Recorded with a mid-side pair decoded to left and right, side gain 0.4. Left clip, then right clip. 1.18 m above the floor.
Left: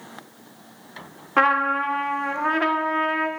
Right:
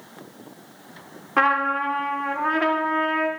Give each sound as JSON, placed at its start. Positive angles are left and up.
{"t": 1.4, "sound": "a trumpet", "azimuth_deg": 15, "distance_m": 0.6}